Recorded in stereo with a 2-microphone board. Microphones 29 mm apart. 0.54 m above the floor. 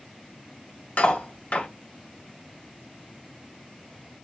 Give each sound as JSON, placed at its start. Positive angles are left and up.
{"t": 1.0, "sound": "cutlery clinking", "side_deg": 55, "distance_m": 1.4}